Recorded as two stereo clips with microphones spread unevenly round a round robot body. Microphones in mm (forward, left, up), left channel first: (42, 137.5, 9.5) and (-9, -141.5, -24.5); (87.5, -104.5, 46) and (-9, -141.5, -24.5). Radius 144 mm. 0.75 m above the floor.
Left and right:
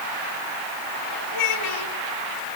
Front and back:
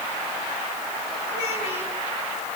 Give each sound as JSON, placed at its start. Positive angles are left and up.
{"t": 1.3, "sound": "a child speaking", "azimuth_deg": 70, "distance_m": 3.5}